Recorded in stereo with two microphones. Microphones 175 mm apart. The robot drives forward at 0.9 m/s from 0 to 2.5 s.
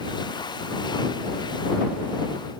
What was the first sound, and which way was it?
Only background noise.